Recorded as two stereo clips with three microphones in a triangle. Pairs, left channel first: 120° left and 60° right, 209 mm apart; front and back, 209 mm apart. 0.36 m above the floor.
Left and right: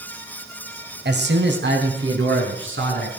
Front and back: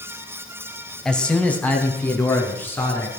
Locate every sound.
1.1 s a man speaking: 85° right, 1.9 m; by 3.1 s 80° right, 5 m